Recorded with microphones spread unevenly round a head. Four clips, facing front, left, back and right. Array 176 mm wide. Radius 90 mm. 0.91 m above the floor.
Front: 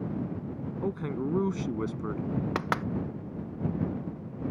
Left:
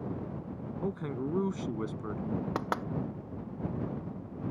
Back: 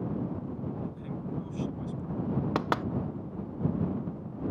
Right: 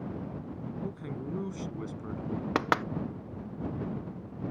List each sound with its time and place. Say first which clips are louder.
0.8 s a man speaking: left 7 dB, front 7 dB; 25° left; by 2.2 s 20° left
2.5 s knocking: right 5 dB, back 1 dB; 95° right